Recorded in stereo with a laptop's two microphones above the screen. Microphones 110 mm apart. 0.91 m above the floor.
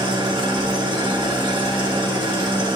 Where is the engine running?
45° right (ahead or behind), 1.2 m.